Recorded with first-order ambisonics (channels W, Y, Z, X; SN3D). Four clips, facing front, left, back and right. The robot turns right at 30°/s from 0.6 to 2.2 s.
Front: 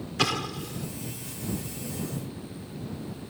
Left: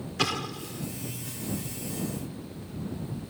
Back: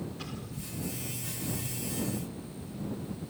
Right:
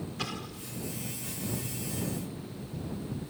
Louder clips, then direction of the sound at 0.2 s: Left 12 dB, front 13 dB; 30° left.